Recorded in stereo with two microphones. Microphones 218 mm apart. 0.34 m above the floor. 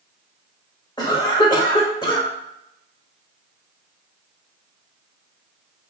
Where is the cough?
20° left (ahead or behind), 1.0 m.